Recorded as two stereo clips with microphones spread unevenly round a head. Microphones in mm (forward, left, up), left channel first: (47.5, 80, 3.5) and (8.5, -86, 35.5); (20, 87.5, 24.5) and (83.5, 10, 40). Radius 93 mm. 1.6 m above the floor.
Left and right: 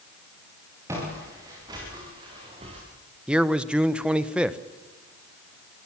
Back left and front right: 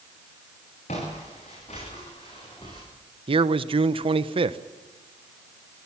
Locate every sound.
0.9 s footsteps: 175° right, 9 m; by 2.8 s 160° right, 6.5 m
3.3 s a man speaking: 20° right, 1.2 m